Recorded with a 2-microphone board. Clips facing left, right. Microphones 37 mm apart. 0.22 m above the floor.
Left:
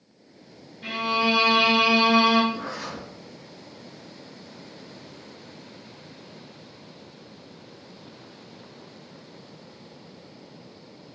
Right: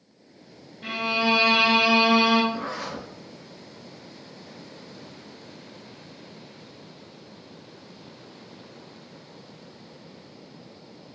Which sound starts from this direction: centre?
A violin, at 0.8 s.